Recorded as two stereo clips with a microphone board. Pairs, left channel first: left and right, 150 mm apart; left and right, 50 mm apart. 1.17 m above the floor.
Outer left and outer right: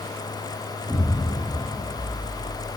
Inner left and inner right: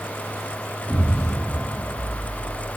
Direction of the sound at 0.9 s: 5° right (ahead or behind).